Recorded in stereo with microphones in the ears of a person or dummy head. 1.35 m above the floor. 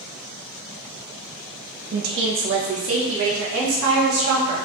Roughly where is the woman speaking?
Right.